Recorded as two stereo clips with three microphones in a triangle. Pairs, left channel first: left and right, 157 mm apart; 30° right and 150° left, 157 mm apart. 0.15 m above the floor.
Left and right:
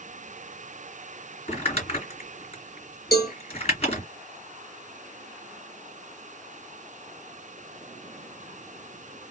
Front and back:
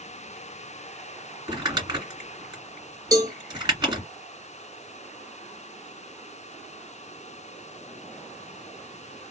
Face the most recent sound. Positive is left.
turn(degrees=85)